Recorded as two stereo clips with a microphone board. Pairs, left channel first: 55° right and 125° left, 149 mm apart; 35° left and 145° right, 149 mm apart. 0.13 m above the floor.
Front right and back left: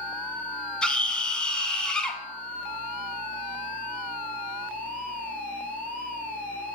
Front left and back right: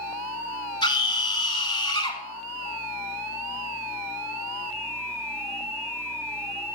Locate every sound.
0.8 s a scream: 25° left, 1.4 m